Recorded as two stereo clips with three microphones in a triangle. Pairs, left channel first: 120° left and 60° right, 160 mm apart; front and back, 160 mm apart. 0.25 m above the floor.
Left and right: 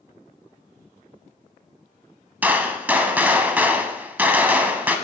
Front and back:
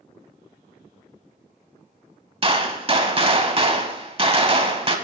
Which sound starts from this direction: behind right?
A gunshot, at 2.4 s.